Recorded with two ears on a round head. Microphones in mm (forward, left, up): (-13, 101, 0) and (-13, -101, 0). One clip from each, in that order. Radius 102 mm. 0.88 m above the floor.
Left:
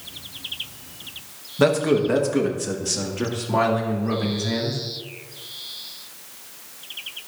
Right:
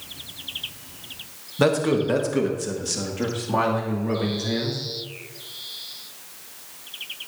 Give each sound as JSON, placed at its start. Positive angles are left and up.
{"t": 1.6, "sound": "a man speaking", "side_deg": 0, "distance_m": 1.2}